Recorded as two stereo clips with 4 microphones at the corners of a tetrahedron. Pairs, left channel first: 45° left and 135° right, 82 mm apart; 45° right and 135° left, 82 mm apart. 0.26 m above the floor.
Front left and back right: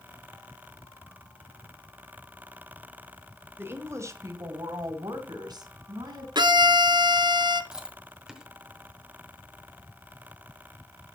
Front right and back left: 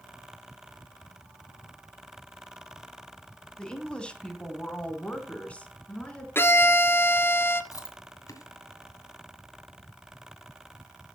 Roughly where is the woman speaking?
Behind right.